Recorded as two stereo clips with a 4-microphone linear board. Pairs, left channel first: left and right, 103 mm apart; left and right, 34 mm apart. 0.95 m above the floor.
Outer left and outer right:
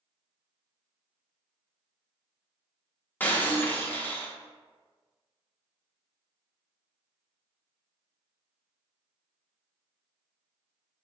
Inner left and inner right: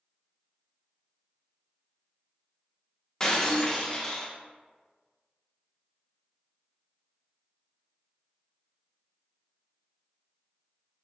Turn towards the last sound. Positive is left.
turn(degrees=20)  # may be behind; listen again after turning